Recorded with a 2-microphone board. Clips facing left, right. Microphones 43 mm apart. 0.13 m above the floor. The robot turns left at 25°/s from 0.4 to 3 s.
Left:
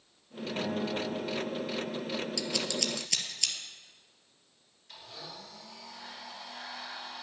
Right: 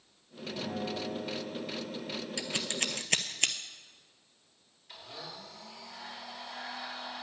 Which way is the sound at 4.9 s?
5° right (ahead or behind).